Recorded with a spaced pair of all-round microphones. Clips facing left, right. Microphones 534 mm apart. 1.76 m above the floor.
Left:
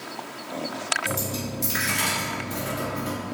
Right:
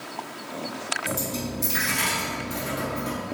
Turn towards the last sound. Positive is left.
turn(degrees=10)  # may be behind; listen again after turning